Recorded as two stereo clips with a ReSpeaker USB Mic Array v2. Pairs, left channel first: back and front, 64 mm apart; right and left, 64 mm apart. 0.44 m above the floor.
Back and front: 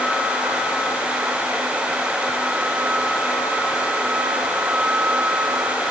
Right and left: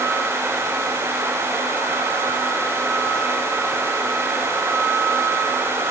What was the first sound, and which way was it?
Only background noise.